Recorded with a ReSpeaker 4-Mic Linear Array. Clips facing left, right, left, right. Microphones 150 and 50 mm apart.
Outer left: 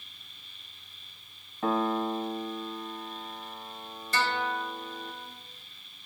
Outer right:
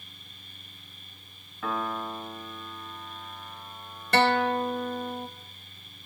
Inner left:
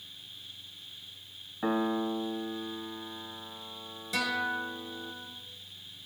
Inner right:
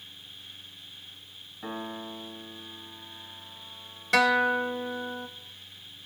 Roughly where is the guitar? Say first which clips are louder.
Outer right 8 dB, inner right 9 dB; right.